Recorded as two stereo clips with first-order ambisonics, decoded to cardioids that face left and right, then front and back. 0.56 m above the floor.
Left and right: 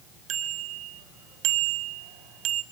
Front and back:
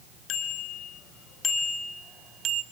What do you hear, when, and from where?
0.3 s a bicycle bell: 45° right, 3 m; by 2.6 s 140° right, 1.4 m